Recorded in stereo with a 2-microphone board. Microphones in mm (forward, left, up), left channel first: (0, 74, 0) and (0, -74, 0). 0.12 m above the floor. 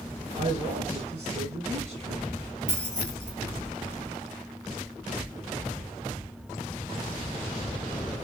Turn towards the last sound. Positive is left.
turn(degrees=-50)  # may be behind; listen again after turning